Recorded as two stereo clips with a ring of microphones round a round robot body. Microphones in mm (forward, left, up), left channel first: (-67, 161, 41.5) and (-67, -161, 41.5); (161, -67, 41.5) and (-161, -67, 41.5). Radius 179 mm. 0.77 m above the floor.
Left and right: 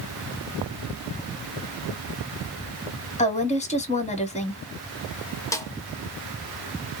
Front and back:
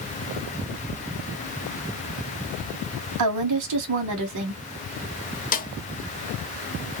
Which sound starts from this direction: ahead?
A snare drum, at 5.5 s.